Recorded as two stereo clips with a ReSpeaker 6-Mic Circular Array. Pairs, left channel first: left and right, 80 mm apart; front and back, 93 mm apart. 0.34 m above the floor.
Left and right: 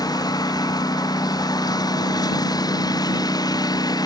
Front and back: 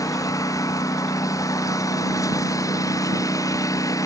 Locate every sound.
0.0 s a lawn mower: 55° left